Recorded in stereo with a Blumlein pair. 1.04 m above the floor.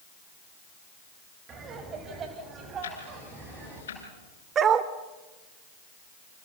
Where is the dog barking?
25° right, 1.4 m.